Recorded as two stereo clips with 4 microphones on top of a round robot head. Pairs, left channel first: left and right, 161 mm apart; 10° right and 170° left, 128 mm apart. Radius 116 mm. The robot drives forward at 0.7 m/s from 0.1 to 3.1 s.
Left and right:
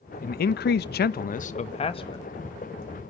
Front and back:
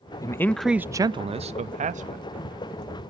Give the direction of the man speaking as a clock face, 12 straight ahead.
10 o'clock.